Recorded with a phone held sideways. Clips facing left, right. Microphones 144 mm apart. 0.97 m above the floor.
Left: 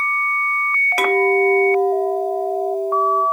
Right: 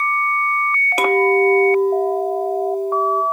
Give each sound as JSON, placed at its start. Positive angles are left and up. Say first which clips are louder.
{"t": 1.0, "sound": "a clink", "louder": "right 1 dB", "side_deg": -20, "distance_m": 0.7}